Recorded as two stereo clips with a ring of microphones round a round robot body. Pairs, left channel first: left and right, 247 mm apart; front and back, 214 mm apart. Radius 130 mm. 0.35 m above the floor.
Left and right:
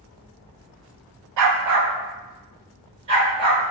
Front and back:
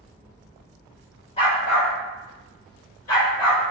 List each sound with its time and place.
1.4 s a dog barking: 70° right, 0.5 m; by 3.6 s 20° right, 1.8 m